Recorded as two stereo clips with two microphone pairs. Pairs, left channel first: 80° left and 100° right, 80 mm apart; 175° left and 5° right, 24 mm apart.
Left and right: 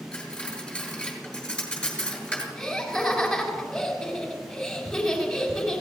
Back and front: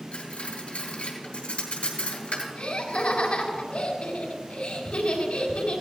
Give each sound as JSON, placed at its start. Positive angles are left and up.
{"t": 0.1, "sound": "cutlery clinking", "azimuth_deg": 160, "distance_m": 3.5}
{"t": 2.5, "sound": "laughter", "azimuth_deg": 165, "distance_m": 3.5}